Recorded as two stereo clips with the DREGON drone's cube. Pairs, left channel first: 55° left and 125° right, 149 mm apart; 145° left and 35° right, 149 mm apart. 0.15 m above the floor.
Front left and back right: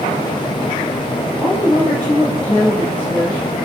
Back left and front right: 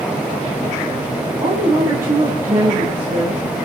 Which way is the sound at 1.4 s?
20° right.